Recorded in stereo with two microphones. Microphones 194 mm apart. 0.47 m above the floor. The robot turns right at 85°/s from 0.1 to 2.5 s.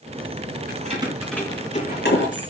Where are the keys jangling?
50° right (ahead or behind), 4 m; by 2.5 s 75° left (ahead or behind), 4 m.